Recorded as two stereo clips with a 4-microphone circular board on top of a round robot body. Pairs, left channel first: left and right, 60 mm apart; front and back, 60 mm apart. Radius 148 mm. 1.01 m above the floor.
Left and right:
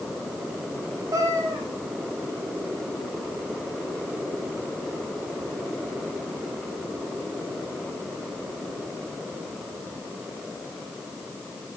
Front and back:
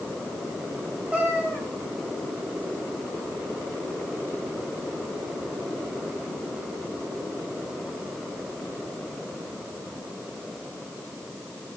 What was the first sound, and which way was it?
A cat meowing, 115° right.